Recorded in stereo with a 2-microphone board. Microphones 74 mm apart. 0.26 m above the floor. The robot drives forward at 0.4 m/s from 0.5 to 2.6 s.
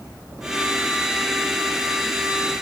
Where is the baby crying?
I don't hear a baby crying.